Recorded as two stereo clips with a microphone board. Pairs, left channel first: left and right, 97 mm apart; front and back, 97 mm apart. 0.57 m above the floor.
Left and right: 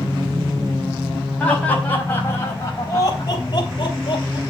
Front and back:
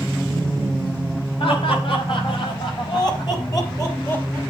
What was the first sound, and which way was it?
Laughter, 15° left.